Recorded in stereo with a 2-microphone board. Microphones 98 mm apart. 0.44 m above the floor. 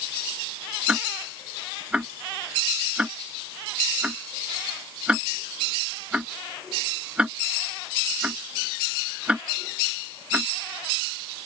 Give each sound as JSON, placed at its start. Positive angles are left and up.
{"t": 0.9, "sound": "ticking", "side_deg": -10}